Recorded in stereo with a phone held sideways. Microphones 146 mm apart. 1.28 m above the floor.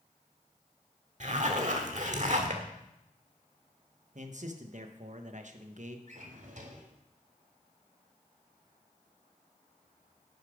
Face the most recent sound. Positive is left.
turn(degrees=-60)  # may be behind; listen again after turning